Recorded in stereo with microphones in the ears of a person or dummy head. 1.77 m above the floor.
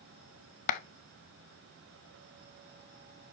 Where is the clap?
45° left (ahead or behind), 0.6 m.